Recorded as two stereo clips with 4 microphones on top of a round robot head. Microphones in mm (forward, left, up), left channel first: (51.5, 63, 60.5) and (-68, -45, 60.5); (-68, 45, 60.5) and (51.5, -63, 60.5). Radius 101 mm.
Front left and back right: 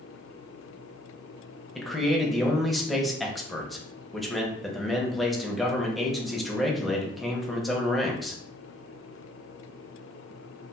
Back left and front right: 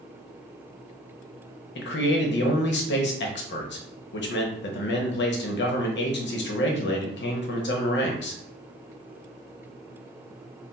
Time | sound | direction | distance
1.8 | a man speaking | 130° left | 0.8 m